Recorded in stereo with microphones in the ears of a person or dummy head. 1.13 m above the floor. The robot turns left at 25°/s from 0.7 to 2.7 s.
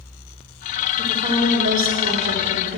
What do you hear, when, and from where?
1.0 s a woman speaking: 25° right, 2 m; by 2.8 s 70° right, 2 m